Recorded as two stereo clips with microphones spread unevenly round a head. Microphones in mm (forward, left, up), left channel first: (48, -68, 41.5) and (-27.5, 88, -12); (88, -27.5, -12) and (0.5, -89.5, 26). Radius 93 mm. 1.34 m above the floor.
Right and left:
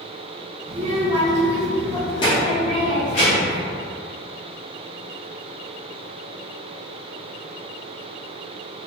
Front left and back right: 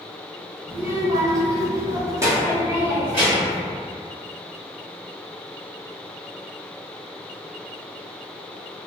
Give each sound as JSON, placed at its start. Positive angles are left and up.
{"t": 0.7, "sound": "a child speaking", "azimuth_deg": 165, "distance_m": 0.9}